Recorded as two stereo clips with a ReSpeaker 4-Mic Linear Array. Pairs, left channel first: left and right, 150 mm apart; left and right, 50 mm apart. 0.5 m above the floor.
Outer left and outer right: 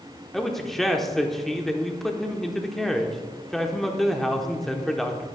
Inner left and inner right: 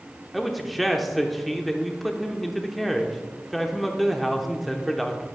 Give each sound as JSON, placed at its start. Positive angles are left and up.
{"t": 0.3, "sound": "a man speaking", "side_deg": 0, "distance_m": 0.8}